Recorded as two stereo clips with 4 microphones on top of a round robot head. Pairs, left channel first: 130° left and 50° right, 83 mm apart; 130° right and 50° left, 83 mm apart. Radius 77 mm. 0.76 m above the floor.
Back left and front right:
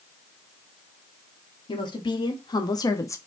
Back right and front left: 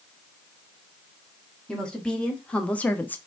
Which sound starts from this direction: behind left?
A woman speaking, at 1.7 s.